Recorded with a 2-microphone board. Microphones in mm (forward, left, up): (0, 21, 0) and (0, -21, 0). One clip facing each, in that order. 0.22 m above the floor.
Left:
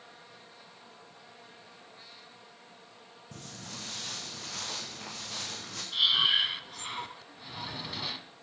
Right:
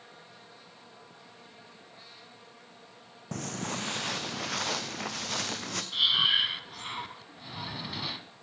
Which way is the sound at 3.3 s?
70° right (ahead or behind).